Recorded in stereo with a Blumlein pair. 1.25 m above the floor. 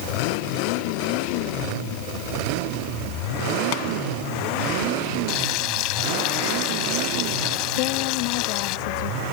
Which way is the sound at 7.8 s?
45° left.